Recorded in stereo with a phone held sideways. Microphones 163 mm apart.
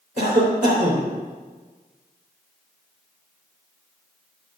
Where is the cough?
55° right (ahead or behind), 3 m.